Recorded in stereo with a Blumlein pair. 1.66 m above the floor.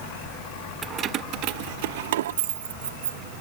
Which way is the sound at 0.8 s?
20° right.